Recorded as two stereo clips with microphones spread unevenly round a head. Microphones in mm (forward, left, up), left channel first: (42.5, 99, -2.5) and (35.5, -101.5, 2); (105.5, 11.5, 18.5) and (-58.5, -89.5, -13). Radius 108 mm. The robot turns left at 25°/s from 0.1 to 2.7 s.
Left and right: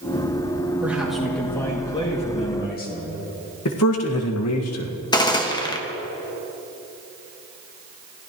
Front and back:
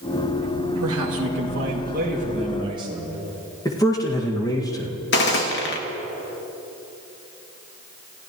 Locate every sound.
0.8 s a man speaking: 175° right, 2.5 m; by 3.2 s 140° left, 2.5 m
3.6 s a man speaking: 105° left, 1.9 m
5.1 s a gunshot: 20° left, 1.6 m